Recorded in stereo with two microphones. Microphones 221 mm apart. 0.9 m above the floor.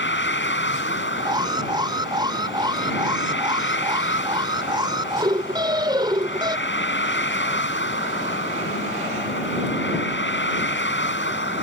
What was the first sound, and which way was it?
A vehicle, 60° left (ahead or behind).